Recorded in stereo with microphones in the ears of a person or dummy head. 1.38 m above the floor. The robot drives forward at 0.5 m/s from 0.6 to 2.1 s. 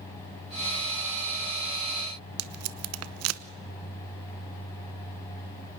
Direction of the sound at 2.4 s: 85° right.